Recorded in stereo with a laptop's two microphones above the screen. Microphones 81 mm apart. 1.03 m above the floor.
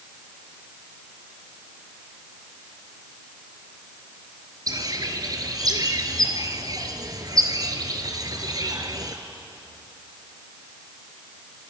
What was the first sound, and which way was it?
A bird, 50° right (ahead or behind).